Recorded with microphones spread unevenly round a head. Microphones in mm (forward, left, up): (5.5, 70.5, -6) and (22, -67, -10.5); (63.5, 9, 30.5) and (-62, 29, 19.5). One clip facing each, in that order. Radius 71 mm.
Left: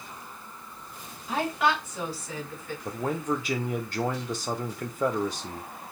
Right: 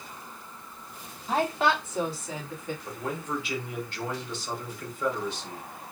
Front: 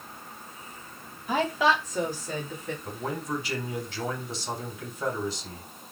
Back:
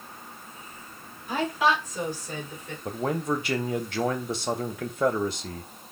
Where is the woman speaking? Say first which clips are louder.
Right 1 dB, even; 25° right, 2.5 m; by 2.8 s 10° right, 1.6 m.